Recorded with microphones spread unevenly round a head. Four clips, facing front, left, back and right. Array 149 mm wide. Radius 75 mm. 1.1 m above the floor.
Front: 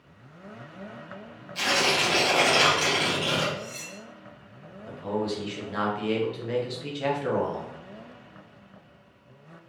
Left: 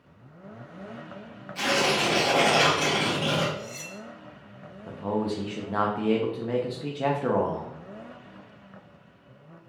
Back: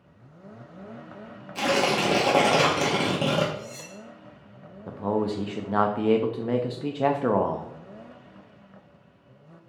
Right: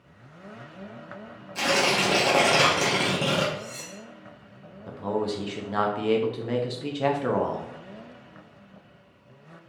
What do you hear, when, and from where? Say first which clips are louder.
1.6 s tearing paper: right 1 dB, back 3 dB; 155° right, 0.7 m
3.5 s cutlery clinking: even, even; 145° right, 0.7 m
4.9 s a man speaking: even, back 3 dB; 175° left, 0.5 m